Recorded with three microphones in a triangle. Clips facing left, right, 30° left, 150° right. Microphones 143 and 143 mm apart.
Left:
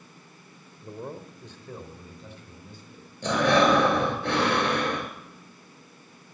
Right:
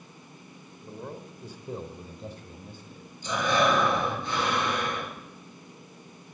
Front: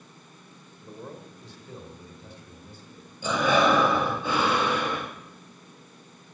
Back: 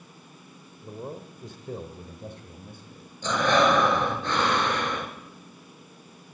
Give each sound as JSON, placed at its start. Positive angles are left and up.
{"t": 0.8, "sound": "a man speaking", "azimuth_deg": 145, "distance_m": 1.3}
{"t": 3.2, "sound": "breathing", "azimuth_deg": 110, "distance_m": 2.0}